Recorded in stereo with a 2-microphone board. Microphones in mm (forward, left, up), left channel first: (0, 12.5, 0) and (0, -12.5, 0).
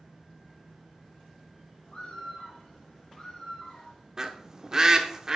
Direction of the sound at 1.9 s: 35° left (ahead or behind).